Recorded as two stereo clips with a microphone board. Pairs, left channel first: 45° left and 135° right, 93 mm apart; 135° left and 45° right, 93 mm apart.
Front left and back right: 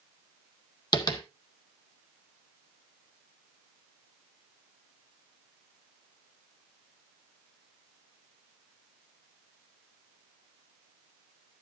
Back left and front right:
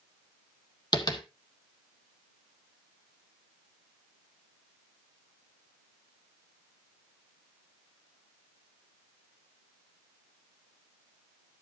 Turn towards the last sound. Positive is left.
turn(degrees=90)